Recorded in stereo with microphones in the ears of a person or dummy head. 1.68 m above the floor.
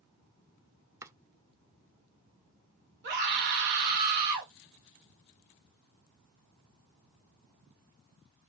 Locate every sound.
1.0 s chopping: 15° right (ahead or behind), 0.5 m
3.0 s a scream: 60° right (ahead or behind), 1.7 m